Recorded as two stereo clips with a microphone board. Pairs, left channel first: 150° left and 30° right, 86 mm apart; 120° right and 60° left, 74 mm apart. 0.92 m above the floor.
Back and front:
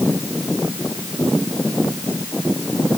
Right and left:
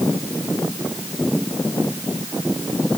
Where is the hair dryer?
No hair dryer in this recording.